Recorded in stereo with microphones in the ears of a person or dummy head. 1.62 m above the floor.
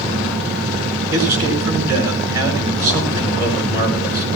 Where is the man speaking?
15° right (ahead or behind), 7.5 m.